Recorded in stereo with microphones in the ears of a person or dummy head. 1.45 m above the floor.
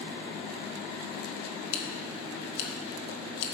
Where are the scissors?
70° left (ahead or behind), 1.3 m.